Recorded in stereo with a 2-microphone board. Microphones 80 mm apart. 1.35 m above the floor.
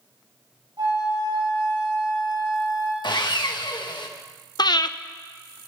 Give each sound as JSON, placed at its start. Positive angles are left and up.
{"t": 0.8, "sound": "a flute", "side_deg": -55, "distance_m": 7.0}
{"t": 3.0, "sound": "sawing", "side_deg": 65, "distance_m": 1.5}
{"t": 4.6, "sound": "breathing", "side_deg": 60, "distance_m": 0.8}